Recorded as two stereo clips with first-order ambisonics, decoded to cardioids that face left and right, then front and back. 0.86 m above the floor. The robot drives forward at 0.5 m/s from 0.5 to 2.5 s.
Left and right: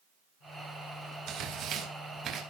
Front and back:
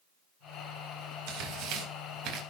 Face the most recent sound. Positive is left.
turn(degrees=-150)